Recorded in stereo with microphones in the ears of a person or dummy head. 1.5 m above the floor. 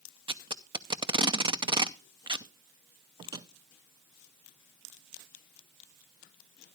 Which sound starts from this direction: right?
Tape being pulled, at 0.3 s.